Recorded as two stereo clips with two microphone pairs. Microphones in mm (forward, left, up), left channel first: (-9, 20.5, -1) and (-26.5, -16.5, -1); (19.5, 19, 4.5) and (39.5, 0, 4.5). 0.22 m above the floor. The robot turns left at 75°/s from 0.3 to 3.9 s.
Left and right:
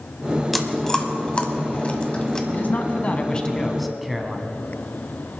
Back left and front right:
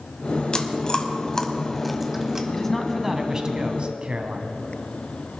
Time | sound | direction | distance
0.5 | chewing | 155° left | 1.2 m
2.5 | a man speaking | 75° left | 1.6 m